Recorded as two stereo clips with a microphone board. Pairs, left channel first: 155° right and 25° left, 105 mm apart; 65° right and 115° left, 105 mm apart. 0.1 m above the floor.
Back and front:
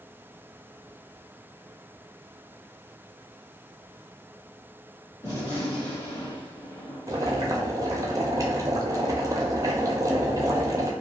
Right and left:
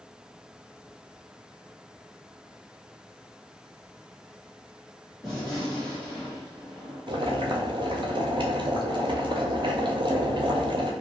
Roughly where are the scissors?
No scissors in this recording.